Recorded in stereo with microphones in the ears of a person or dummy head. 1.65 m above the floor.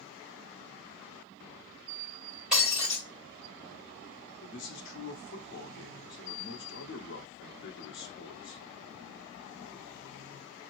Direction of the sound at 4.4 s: 65° left (ahead or behind).